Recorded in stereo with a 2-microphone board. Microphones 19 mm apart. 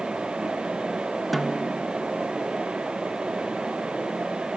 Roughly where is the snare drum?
Centre.